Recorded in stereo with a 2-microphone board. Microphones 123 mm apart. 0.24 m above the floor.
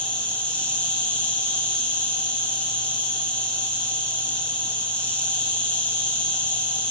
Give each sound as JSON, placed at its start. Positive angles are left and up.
{"t": 0.0, "sound": "an insect", "side_deg": 10, "distance_m": 2.0}